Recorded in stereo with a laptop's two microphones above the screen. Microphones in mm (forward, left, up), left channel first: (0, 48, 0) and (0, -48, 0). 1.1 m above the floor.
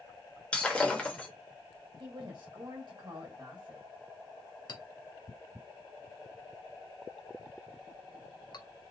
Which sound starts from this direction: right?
A woman speaking, at 2.0 s.